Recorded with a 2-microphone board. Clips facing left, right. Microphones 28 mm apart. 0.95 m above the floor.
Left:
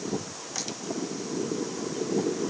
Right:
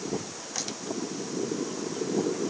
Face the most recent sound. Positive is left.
No sound to turn to.